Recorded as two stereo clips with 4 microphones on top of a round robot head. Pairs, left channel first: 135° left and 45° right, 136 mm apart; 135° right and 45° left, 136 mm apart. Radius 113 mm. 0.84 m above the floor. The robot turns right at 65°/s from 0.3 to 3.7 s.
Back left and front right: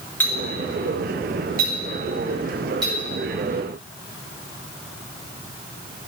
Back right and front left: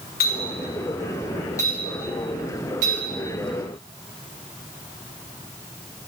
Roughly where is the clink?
Behind right.